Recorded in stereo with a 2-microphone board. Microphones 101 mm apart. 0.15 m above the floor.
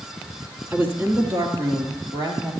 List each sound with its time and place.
0.7 s a woman speaking: 15° right (ahead or behind), 1.4 m; by 2.5 s 35° right (ahead or behind), 3.5 m